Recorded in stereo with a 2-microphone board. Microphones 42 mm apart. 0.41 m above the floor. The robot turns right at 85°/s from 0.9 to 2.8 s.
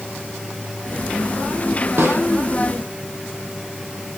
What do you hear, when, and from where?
2.0 s a snare drum: 60° right (ahead or behind), 6 m; by 2.2 s 85° right, 6 m